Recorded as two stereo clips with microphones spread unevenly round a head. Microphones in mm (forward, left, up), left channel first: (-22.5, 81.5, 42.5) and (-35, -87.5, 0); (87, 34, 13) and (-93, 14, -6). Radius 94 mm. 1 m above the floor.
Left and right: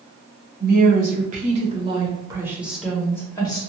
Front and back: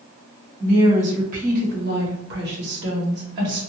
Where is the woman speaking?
115° right, 1.5 m; by 3.6 s 155° left, 1.1 m.